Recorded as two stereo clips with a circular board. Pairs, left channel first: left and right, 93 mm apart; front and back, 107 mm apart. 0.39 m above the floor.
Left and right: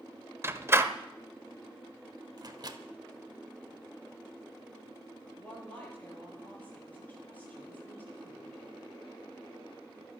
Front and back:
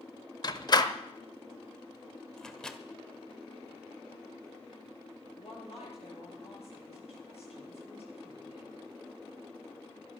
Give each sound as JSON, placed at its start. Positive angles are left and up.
{"t": 0.4, "sound": "a door slam", "azimuth_deg": -35, "distance_m": 0.9}
{"t": 2.4, "sound": "a microwave", "azimuth_deg": -85, "distance_m": 1.1}
{"t": 5.4, "sound": "a woman speaking", "azimuth_deg": 20, "distance_m": 8.5}